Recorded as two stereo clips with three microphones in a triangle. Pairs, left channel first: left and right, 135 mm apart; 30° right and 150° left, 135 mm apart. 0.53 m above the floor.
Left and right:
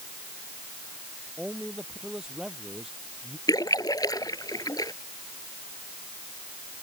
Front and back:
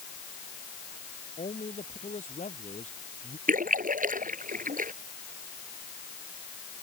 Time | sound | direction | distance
1.4 | a man speaking | 5° right | ?
3.5 | a splash | 155° left | ?